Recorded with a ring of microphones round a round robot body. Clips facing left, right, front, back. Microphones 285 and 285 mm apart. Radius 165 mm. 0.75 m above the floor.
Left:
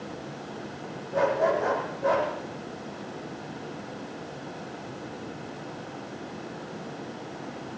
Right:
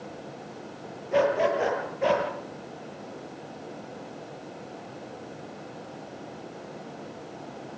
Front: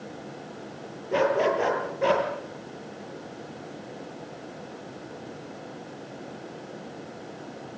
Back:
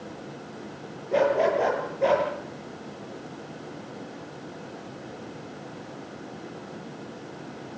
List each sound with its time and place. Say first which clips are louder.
1.1 s a dog barking: right 1 dB, back 1 dB; 70° right, 7.5 m